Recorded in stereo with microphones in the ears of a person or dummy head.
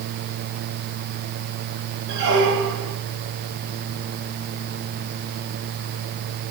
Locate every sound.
2.1 s a squeak: 65° right (ahead or behind), 9 m